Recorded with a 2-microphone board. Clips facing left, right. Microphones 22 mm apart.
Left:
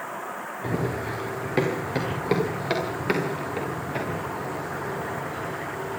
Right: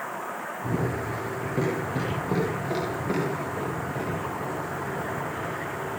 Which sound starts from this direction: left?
Running footsteps, at 0.6 s.